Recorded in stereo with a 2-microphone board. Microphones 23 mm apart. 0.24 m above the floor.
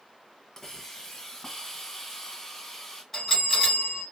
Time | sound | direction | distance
0.6 | a hiss | 20° left (ahead or behind) | 1.1 m
3.1 | a bell | 20° left (ahead or behind) | 2.0 m